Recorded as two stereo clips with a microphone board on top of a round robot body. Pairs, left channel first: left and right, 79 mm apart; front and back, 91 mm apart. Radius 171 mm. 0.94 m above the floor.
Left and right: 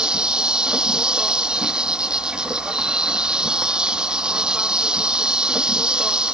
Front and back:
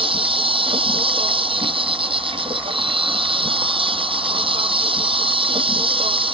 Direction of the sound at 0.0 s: 170° right.